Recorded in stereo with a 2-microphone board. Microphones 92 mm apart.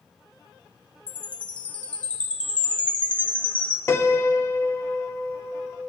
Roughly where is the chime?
Centre.